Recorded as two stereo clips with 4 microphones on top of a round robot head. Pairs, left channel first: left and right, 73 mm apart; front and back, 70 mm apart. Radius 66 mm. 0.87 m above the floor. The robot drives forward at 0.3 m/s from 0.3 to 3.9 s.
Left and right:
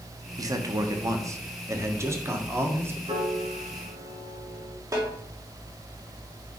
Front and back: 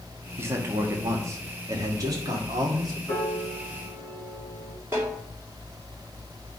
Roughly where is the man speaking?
Behind right.